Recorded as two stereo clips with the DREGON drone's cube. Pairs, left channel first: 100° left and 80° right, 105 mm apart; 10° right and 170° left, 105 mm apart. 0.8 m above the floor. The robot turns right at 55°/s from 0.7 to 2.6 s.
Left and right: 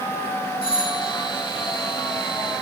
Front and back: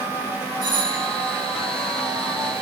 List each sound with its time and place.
0.6 s a doorbell: 130° left, 3 m; by 1.1 s 150° left, 3 m